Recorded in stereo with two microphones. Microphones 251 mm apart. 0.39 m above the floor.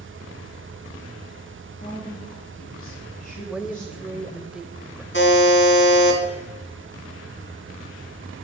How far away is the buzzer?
About 3 m.